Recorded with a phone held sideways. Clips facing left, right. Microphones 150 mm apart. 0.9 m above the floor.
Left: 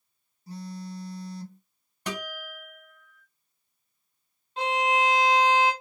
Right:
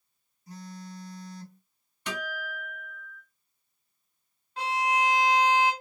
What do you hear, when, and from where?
0.5 s a phone buzzing: 30° left (ahead or behind), 0.9 m
2.1 s a guitar: 40° left (ahead or behind), 1.6 m
4.6 s a violin: 20° left (ahead or behind), 1.0 m